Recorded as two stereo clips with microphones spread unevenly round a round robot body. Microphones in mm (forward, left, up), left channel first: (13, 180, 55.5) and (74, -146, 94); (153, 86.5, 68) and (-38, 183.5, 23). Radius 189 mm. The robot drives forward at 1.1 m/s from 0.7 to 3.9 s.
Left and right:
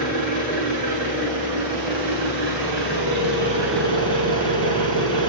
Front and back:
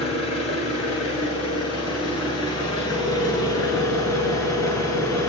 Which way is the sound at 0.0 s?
45° right.